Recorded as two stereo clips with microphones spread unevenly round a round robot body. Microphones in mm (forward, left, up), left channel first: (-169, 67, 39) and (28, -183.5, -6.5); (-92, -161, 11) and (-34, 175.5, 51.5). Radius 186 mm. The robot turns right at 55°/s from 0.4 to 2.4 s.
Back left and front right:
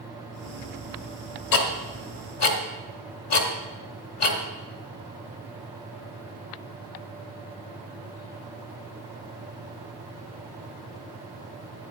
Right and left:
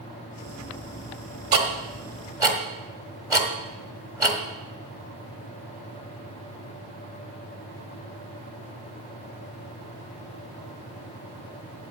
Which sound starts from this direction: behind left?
Ticking, at 1.5 s.